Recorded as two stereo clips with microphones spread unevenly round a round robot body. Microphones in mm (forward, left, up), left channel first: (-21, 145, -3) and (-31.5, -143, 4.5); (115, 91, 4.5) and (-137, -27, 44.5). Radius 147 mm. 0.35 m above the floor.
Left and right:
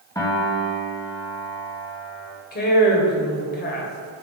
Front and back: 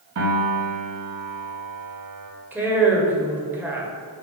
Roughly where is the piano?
Behind.